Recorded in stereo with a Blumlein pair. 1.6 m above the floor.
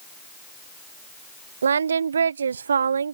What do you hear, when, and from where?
1.6 s singing: 70° right